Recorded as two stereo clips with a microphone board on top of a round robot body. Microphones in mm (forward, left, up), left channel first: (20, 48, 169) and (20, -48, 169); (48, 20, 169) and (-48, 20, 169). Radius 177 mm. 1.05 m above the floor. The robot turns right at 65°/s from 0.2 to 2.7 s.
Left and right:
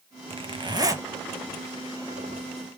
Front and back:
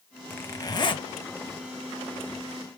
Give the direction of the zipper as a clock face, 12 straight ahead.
2 o'clock.